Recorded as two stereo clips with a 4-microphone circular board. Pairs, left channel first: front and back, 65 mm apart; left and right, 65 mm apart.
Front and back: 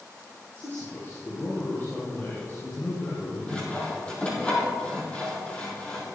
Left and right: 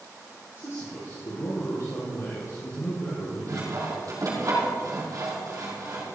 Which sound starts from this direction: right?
Sawing, at 3.5 s.